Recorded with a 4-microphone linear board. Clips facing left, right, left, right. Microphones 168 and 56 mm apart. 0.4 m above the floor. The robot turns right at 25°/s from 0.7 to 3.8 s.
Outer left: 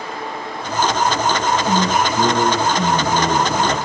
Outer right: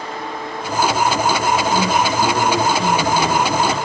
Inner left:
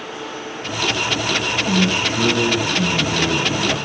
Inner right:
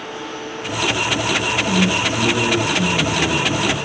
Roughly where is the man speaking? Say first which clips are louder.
Even, inner left 1 dB; ahead left.